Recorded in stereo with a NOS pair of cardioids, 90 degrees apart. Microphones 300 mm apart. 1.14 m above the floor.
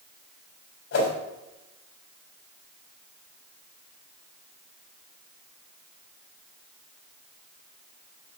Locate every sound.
0.9 s a whoosh: 55° left, 3.5 m